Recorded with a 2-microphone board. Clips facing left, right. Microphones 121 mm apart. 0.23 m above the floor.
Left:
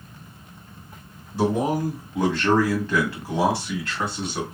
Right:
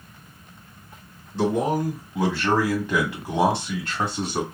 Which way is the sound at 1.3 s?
10° left (ahead or behind).